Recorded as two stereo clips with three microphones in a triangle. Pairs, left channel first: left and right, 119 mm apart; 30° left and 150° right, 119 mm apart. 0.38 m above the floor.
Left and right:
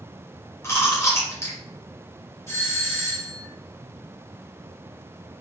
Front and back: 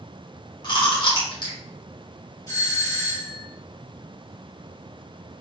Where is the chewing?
40° left, 1.3 m.